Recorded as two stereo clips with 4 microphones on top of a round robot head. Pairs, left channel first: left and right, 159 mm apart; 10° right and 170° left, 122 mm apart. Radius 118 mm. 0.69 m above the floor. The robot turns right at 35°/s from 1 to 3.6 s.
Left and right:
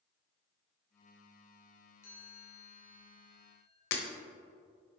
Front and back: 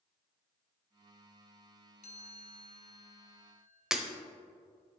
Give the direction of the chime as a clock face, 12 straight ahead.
12 o'clock.